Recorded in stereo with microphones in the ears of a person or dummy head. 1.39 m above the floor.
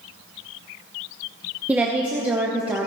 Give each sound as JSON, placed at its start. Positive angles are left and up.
{"t": 1.7, "sound": "a woman speaking", "side_deg": -5, "distance_m": 0.9}